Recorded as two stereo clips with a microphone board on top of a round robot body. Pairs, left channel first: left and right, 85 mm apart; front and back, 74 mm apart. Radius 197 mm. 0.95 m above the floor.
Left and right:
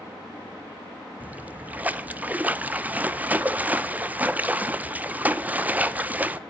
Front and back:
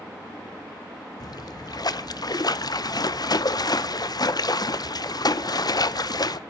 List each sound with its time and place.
1.2 s a splash: 20° right, 1.0 m